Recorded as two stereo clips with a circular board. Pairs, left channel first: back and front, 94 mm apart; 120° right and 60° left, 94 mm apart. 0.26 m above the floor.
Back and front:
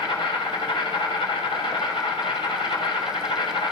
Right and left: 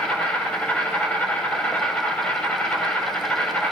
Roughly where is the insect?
Behind.